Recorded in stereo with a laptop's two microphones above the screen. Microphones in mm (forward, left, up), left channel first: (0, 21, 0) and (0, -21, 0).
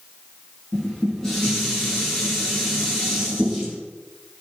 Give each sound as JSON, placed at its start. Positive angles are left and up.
{"t": 0.7, "sound": "dishes clattering", "side_deg": 10, "distance_m": 7.0}